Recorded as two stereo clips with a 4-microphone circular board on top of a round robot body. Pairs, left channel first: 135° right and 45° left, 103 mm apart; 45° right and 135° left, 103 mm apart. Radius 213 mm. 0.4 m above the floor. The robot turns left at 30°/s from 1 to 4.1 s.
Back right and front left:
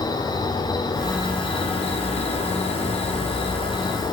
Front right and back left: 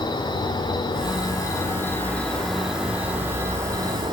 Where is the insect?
90° right, 1.0 m; by 4.1 s straight behind, 1.0 m.